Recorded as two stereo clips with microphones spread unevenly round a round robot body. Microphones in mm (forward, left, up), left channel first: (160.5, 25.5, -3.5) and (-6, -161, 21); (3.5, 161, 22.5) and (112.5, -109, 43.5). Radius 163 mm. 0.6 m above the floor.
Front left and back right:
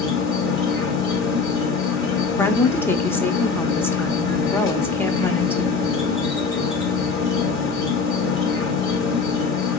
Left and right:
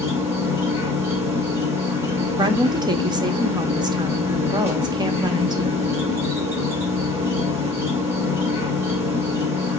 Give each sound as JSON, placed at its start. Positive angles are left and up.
{"t": 0.0, "sound": "an insect", "azimuth_deg": 15, "distance_m": 1.7}
{"t": 2.4, "sound": "a woman speaking", "azimuth_deg": -5, "distance_m": 0.7}